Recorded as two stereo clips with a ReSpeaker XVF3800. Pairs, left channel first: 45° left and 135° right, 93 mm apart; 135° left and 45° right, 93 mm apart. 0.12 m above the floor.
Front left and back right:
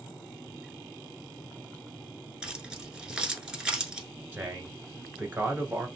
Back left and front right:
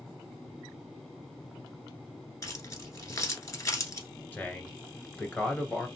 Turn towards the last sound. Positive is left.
turn(degrees=-175)